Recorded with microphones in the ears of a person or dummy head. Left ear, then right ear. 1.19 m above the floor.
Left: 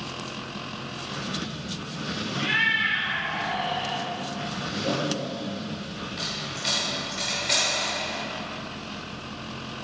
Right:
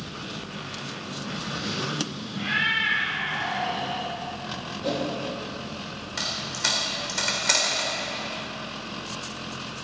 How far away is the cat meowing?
About 3 m.